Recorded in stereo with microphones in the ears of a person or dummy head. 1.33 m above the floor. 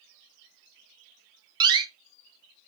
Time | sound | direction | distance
1.6 | a door slam | 25° right (ahead or behind) | 0.6 m